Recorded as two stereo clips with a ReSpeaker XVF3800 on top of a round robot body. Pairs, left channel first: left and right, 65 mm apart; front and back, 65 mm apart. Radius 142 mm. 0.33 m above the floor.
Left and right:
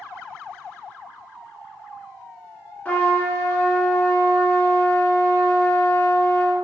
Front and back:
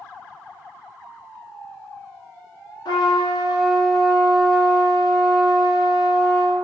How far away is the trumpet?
About 1.4 m.